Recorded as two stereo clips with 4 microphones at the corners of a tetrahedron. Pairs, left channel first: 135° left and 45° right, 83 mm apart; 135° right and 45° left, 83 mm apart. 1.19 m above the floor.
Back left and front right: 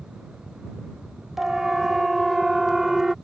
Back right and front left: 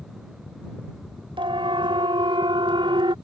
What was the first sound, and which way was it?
A siren, 40° left.